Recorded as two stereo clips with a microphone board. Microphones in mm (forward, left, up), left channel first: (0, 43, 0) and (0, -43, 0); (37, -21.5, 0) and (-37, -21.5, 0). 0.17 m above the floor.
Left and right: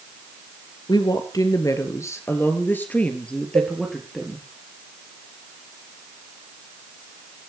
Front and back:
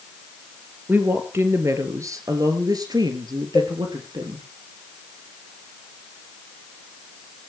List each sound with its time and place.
0.9 s a woman speaking: 120° left, 3 m; by 4.4 s straight behind, 4 m
3.5 s a cowbell: 70° right, 2.5 m